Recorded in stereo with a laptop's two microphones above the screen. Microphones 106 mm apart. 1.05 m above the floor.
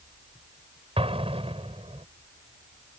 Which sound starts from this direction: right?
An explosion, at 1.0 s.